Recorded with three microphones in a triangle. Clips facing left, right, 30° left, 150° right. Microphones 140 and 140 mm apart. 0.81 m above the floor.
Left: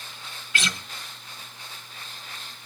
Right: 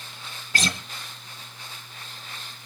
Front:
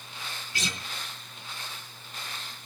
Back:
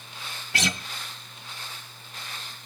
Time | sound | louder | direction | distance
0.5 | a guitar | right 3 dB, back 7 dB | 140° right | 1.7 m